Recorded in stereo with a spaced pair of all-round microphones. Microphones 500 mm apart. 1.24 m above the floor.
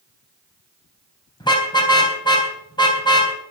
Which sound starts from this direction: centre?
A car horn, at 1.4 s.